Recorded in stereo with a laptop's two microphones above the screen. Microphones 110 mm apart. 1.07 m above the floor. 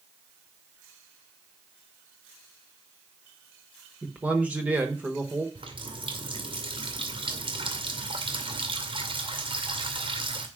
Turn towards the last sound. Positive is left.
turn(degrees=-45)  # may be behind; listen again after turning